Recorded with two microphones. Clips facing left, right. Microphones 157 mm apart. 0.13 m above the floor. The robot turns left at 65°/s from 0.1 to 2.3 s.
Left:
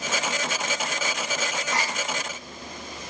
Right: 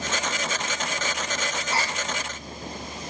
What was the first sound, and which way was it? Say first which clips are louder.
A gasp: right 2 dB; centre (ahead or behind).